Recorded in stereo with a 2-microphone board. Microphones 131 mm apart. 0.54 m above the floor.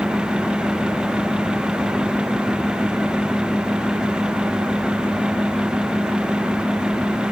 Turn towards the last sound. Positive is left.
No sound to turn to.